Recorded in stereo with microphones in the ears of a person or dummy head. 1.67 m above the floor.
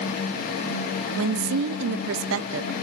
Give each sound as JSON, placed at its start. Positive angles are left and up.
{"t": 1.2, "sound": "a woman speaking", "side_deg": -65, "distance_m": 0.6}